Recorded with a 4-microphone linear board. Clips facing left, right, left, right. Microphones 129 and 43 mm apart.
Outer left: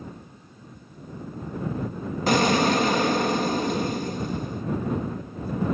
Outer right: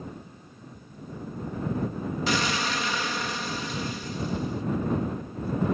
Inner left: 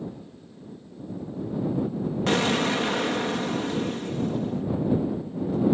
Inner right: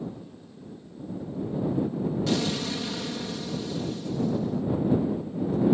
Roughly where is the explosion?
Left.